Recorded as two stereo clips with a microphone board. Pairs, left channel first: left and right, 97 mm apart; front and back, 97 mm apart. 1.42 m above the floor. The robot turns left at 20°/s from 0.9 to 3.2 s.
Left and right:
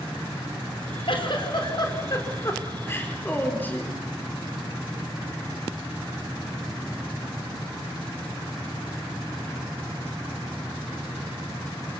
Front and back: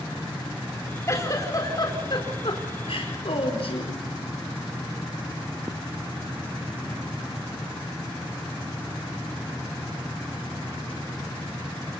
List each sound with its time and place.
1.1 s a giggle: 60° left, 4 m; by 4.0 s 20° left, 4 m